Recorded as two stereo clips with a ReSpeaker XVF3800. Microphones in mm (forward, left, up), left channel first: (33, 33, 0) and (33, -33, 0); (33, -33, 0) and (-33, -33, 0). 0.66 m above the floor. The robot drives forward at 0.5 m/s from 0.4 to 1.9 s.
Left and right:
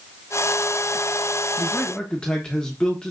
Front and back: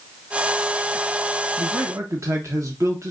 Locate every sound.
1.6 s a man speaking: 160° left, 0.7 m; by 3.1 s 165° left, 0.8 m